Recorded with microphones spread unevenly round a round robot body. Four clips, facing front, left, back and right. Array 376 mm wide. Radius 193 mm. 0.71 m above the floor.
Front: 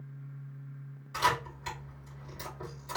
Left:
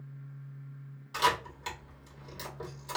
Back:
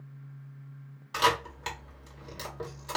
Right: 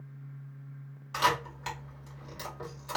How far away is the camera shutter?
About 2.5 m.